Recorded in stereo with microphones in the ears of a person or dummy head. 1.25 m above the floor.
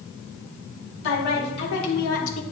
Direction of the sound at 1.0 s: 70° left (ahead or behind).